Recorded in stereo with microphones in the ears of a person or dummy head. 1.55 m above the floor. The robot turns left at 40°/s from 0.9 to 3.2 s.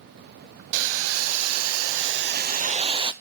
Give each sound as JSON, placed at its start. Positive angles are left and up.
{"t": 0.7, "sound": "boiling", "azimuth_deg": -65, "distance_m": 0.6}